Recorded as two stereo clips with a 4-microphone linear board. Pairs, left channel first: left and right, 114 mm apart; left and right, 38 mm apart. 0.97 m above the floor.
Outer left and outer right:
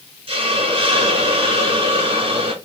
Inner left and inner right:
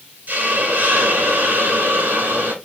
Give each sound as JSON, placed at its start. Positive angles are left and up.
{"t": 0.3, "sound": "a hiss", "side_deg": -50, "distance_m": 1.3}